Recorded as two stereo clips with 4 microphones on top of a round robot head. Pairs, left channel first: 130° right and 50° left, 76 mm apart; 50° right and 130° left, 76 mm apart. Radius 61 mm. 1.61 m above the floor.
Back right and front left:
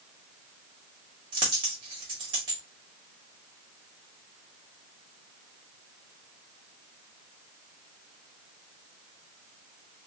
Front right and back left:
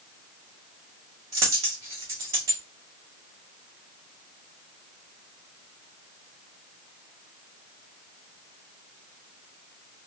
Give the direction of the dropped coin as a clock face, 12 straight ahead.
9 o'clock.